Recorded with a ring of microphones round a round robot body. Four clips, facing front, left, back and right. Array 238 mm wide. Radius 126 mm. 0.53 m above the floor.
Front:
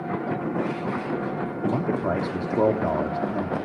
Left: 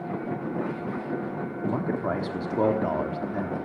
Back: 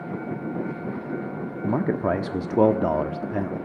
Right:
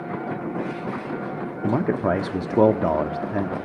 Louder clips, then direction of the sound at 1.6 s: Right 6 dB, back 2 dB; 120° right.